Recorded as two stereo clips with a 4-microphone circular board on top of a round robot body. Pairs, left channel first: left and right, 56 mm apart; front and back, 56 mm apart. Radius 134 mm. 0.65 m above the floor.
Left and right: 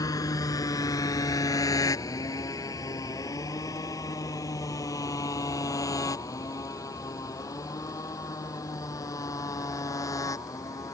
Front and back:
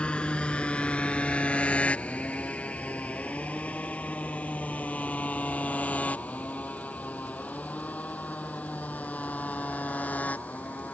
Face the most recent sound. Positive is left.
turn(degrees=65)